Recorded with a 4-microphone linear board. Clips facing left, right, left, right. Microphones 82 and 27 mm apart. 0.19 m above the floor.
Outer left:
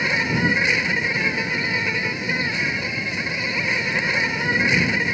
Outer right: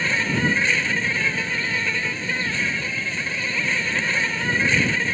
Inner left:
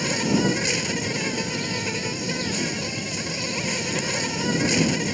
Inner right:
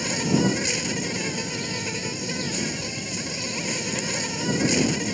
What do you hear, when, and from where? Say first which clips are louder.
0.0 s an insect: outer left 1 dB, inner left 1 dB; 15° left (ahead or behind)